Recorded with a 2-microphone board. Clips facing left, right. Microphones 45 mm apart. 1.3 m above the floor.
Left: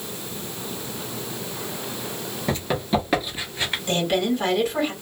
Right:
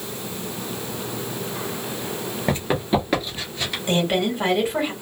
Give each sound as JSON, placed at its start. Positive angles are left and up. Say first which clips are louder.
{"t": 2.5, "sound": "running footsteps", "louder": "right 2 dB", "side_deg": -20, "distance_m": 1.4}
{"t": 3.9, "sound": "a woman speaking", "louder": "right 1 dB", "side_deg": -20, "distance_m": 2.0}